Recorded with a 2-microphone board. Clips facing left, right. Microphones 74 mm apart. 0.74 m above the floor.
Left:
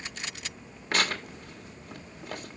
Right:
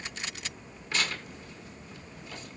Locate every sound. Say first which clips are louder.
0.9 s tearing paper: left 4 dB; 55° left (ahead or behind), 1.3 m